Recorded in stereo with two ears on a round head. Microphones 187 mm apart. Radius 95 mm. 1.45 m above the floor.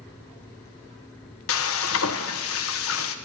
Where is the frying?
70° left (ahead or behind), 0.8 m.